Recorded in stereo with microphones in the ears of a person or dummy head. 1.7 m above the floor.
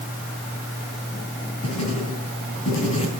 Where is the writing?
30° left (ahead or behind), 4.5 m.